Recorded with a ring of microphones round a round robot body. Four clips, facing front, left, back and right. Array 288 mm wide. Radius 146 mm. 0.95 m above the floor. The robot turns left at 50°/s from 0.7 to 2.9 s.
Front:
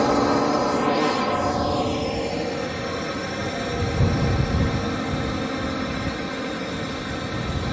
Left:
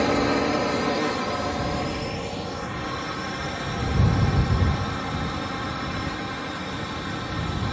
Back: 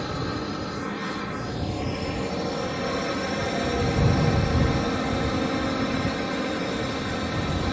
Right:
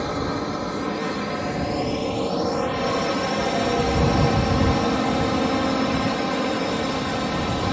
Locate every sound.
0.0 s a drone: 20° left; by 7.7 s 90° right